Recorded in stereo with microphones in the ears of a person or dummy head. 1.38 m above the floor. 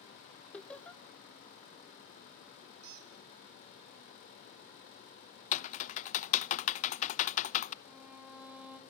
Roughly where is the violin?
Centre.